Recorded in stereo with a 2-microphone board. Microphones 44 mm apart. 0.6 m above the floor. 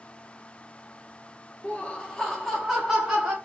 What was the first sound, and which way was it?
Laughter, 30° left (ahead or behind).